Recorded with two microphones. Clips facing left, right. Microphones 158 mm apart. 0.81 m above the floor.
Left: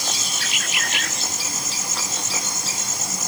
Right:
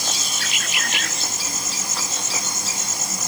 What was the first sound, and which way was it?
Only background noise.